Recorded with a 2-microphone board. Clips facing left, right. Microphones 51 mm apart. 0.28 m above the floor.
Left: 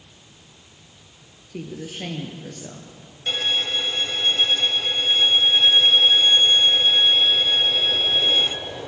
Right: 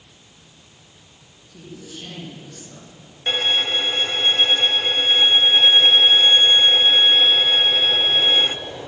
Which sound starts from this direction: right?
A violin, at 3.3 s.